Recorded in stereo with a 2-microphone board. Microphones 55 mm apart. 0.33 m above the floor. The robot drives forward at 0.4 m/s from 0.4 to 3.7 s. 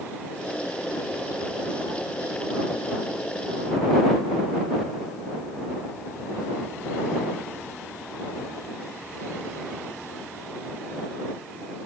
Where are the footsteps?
I don't hear footsteps.